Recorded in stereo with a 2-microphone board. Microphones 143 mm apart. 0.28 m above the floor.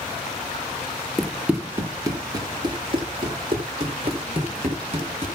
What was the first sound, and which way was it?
Running footsteps, centre (ahead or behind).